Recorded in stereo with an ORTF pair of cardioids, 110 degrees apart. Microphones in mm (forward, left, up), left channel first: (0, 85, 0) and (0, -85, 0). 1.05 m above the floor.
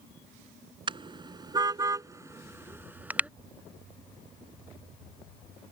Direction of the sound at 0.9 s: 30° right.